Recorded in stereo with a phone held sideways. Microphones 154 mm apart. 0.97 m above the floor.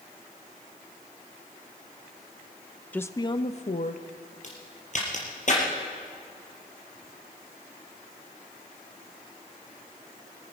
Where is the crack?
55° left (ahead or behind), 4.5 m.